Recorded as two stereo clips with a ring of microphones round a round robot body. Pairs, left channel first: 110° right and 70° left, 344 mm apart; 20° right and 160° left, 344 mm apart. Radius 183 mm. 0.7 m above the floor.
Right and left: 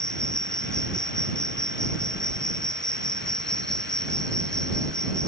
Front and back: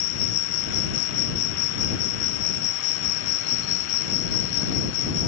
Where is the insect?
25° right.